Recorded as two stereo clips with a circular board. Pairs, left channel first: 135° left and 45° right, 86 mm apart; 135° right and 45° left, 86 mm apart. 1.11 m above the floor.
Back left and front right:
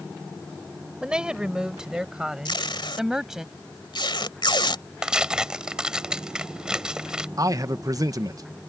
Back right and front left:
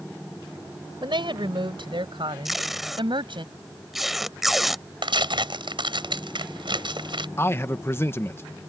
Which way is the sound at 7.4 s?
80° right.